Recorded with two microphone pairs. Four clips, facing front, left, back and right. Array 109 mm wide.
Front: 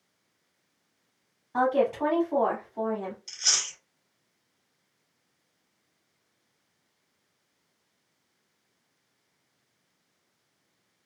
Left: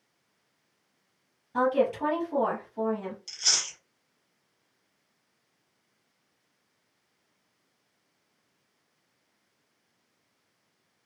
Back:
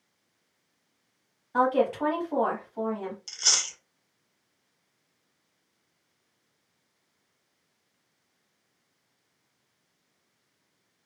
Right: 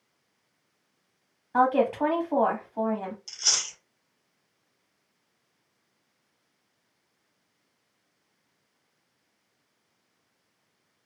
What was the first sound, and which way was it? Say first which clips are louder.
A woman speaking: right 3 dB, even; 105° right.